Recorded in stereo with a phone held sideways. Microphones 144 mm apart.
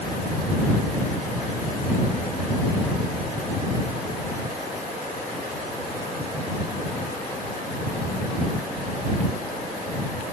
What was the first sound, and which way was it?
Only background noise.